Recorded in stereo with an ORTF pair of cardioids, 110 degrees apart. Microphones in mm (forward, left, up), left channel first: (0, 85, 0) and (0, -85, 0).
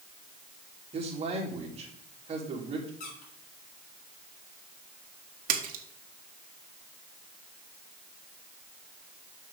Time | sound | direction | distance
0.9 | a man speaking | 35° right | 3 m
3.0 | a squeak | 65° left | 3.5 m
5.5 | a splash | 60° right | 1.3 m